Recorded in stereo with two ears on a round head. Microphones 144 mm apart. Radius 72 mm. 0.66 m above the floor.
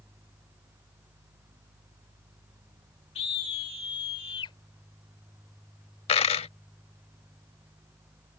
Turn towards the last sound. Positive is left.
turn(degrees=35)  # may be behind; listen again after turning